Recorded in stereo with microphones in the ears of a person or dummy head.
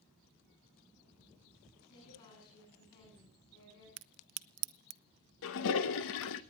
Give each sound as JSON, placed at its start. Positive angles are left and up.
{"t": 1.8, "sound": "a woman speaking", "side_deg": 35, "distance_m": 10.0}
{"t": 4.0, "sound": "a crack", "side_deg": -80, "distance_m": 0.7}
{"t": 5.4, "sound": "a toilet flushing", "side_deg": 65, "distance_m": 1.0}